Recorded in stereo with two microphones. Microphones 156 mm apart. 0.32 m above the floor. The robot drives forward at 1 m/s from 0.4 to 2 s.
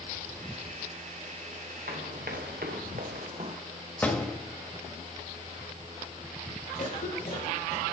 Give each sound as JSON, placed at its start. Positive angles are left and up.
{"t": 1.9, "sound": "running footsteps", "side_deg": -80, "distance_m": 1.9}
{"t": 4.0, "sound": "a door slam", "side_deg": 10, "distance_m": 1.3}
{"t": 6.8, "sound": "a cough", "side_deg": 60, "distance_m": 5.0}